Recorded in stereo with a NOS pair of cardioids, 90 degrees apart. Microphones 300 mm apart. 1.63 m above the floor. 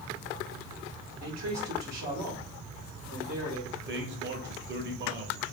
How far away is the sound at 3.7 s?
About 1.3 m.